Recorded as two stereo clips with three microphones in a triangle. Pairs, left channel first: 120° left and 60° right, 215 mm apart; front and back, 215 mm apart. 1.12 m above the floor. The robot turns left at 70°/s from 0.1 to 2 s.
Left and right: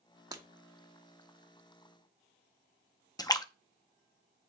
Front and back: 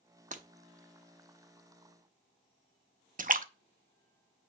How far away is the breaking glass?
About 0.9 m.